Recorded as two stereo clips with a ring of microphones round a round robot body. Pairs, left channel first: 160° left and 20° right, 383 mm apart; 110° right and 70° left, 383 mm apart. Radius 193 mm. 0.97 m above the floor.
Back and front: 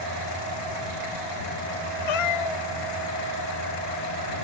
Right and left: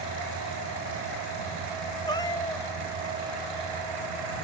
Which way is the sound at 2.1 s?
170° left.